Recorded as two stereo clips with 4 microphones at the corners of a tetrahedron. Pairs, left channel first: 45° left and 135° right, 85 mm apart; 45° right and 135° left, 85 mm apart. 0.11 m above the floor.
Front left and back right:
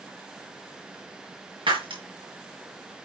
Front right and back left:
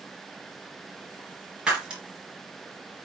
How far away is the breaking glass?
About 5.5 m.